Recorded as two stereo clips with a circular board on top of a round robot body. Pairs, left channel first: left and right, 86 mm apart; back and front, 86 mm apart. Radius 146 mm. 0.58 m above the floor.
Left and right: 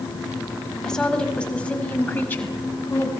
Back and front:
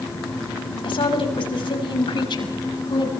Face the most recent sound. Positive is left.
turn(degrees=155)